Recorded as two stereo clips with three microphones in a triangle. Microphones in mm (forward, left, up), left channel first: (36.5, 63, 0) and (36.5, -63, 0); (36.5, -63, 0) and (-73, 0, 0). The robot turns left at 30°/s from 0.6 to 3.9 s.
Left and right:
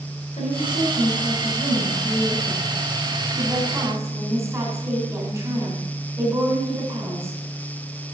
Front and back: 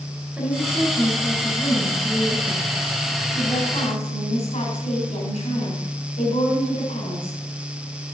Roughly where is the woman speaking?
Left.